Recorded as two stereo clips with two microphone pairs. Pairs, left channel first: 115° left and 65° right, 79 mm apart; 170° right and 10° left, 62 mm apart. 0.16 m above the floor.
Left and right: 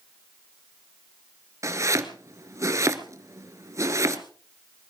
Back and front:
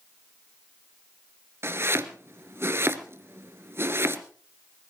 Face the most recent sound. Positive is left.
turn(degrees=-25)